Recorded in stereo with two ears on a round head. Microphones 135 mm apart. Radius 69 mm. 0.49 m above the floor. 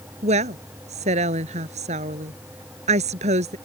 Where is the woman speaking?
50° right (ahead or behind).